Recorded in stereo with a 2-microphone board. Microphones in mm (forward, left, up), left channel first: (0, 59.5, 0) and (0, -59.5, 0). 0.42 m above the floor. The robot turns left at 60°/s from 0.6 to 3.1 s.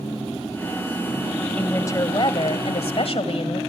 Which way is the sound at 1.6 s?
165° left.